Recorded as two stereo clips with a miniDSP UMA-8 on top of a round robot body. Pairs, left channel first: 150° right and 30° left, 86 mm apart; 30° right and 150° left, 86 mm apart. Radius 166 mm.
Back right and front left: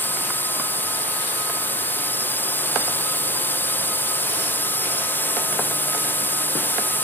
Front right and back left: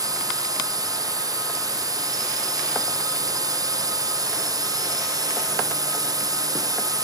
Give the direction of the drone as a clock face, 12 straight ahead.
7 o'clock.